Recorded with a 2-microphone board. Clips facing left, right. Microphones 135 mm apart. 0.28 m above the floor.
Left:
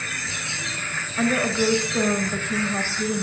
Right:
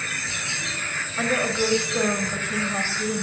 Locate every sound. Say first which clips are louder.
1.2 s a woman speaking: left 2 dB; 5° right (ahead or behind), 0.9 m